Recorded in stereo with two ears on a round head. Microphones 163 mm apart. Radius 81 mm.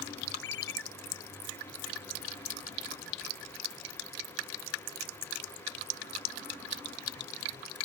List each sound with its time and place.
0.4 s a ringtone: 70° left (ahead or behind)